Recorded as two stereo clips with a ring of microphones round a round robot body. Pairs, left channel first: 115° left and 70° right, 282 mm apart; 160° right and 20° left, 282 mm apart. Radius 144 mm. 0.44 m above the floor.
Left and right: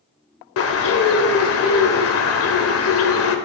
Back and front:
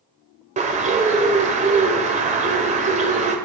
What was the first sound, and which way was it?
A bird, 85° left.